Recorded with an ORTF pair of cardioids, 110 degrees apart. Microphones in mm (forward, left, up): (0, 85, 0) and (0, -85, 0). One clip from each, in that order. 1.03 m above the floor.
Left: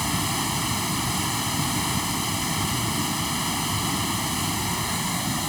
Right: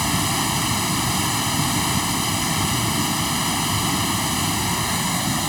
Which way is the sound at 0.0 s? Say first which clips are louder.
Right 4 dB; 30° right.